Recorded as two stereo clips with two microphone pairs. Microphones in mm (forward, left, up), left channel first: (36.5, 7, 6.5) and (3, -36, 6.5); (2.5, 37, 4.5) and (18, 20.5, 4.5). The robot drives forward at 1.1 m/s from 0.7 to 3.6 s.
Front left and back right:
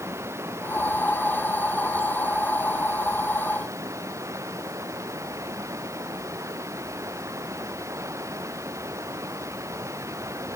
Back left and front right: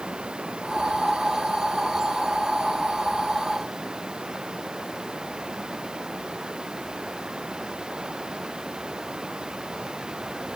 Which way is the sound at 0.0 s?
95° right.